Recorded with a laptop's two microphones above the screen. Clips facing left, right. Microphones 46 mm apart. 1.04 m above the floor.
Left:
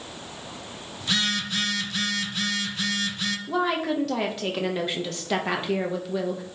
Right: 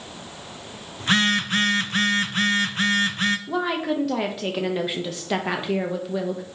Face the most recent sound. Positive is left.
turn(degrees=-5)  # may be behind; listen again after turning